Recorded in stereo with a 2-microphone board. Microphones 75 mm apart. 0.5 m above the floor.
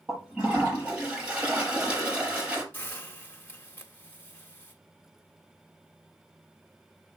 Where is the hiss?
25° left (ahead or behind), 1.7 m.